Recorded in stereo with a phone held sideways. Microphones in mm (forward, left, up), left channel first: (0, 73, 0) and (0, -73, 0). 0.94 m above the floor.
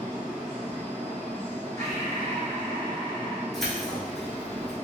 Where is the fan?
20° right (ahead or behind), 1.6 m.